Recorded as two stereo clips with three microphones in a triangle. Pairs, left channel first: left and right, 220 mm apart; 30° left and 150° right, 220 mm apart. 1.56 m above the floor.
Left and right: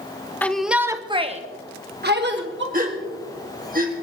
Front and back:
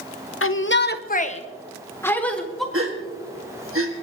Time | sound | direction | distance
0.4 | a shout | 10° left | 1.0 m
2.7 | a gasp | 140° right | 2.0 m